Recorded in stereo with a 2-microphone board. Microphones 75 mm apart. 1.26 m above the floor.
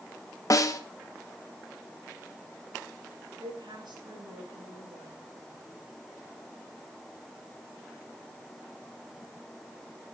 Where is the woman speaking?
80° right, 6 m.